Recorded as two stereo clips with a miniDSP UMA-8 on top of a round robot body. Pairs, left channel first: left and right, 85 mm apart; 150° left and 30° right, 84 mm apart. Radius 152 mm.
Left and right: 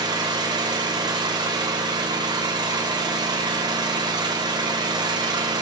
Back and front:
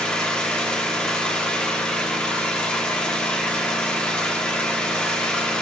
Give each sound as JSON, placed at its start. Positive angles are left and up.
{"t": 0.0, "sound": "an engine running", "azimuth_deg": -130, "distance_m": 1.2}